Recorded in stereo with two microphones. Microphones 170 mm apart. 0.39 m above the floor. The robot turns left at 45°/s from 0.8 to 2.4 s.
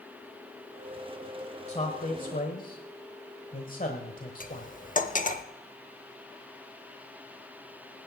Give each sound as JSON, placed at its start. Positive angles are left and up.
{"t": 1.7, "sound": "a man speaking", "side_deg": 40, "distance_m": 1.2}
{"t": 4.4, "sound": "cutlery clinking", "side_deg": 50, "distance_m": 0.7}